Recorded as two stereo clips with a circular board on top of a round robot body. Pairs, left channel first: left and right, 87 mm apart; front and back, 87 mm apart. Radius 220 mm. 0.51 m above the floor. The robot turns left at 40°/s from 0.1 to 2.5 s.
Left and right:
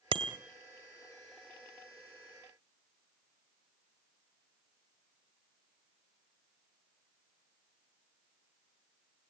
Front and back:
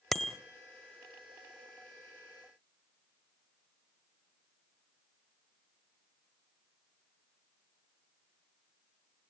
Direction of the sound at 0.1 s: 85° right.